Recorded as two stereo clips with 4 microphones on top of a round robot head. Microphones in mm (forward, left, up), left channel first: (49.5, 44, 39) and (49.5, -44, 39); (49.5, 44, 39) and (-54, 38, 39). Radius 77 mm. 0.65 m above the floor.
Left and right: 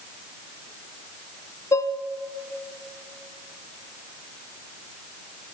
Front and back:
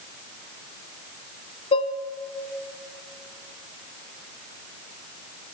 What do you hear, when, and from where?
1.7 s dishes clattering: 35° left, 1.1 m